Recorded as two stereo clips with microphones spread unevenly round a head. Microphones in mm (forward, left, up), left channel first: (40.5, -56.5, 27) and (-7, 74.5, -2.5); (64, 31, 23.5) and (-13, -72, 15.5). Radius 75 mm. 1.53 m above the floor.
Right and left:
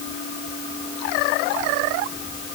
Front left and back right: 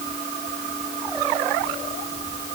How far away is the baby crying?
I don't hear a baby crying.